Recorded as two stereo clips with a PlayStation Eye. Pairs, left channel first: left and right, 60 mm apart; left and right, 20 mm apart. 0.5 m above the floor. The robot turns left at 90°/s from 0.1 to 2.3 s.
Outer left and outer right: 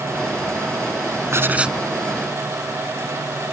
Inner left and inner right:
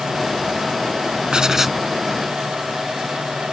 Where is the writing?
130° right; by 1.8 s 175° right.